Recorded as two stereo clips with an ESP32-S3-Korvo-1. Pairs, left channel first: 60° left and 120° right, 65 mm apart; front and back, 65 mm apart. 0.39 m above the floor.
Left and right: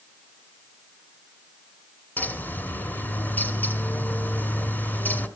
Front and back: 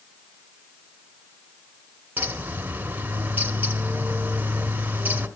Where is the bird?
120° left, 0.9 m.